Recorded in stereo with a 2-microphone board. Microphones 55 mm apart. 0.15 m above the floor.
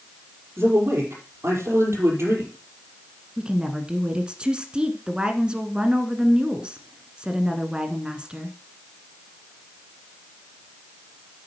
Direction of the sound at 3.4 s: 20° right (ahead or behind).